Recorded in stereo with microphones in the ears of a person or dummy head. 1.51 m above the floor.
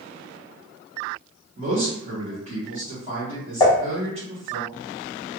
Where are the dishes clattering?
25° left (ahead or behind), 1.1 m.